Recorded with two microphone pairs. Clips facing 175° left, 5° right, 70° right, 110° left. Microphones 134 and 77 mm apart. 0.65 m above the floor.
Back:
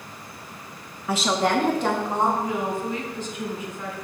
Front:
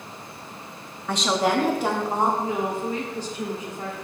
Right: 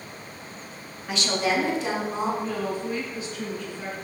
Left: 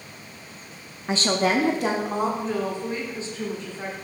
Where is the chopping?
No chopping in this recording.